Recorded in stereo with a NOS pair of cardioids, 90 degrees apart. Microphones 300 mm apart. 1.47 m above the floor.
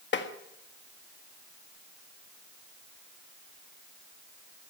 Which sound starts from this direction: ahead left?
Tapping, at 0.1 s.